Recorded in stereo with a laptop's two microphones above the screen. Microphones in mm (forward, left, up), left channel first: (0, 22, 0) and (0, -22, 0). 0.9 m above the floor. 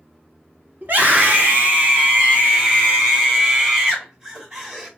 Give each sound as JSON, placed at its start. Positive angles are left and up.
{"t": 0.8, "sound": "a scream", "side_deg": -50, "distance_m": 2.0}